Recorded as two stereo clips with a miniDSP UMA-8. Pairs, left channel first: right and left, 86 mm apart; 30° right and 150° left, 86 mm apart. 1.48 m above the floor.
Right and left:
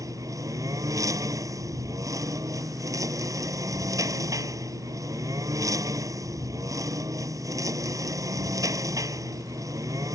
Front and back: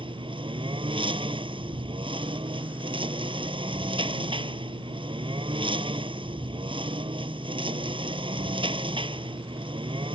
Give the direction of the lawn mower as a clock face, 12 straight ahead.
7 o'clock.